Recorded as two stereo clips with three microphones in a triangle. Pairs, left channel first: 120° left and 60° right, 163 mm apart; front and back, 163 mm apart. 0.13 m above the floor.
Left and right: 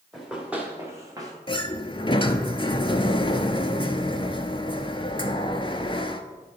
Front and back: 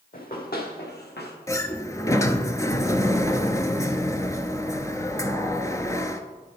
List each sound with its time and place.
0.1 s running footsteps: 30° left, 2.5 m; by 1.3 s 5° left, 2 m
1.5 s a sliding door: 70° left, 0.6 m